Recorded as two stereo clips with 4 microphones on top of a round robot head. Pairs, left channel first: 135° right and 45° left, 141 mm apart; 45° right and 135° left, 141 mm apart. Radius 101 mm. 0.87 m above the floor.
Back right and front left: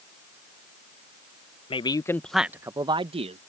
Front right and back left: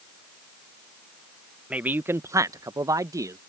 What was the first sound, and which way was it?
A man speaking, 145° right.